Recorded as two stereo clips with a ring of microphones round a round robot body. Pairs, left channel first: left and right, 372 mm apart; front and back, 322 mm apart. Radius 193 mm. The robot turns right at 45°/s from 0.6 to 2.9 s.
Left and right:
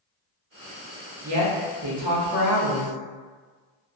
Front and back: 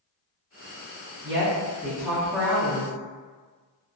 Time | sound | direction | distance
1.2 | a woman speaking | 130° right | 0.9 m